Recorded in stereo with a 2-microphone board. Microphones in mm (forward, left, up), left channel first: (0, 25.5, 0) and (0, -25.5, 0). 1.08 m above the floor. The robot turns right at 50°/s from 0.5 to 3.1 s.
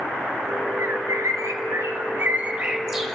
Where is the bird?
60° right (ahead or behind), 1.7 m; by 3.1 s centre (ahead or behind), 1.7 m.